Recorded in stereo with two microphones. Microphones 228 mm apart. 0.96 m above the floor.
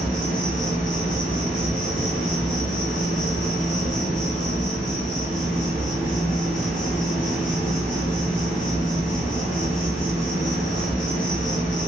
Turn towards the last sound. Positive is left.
turn(degrees=5)  # may be behind; listen again after turning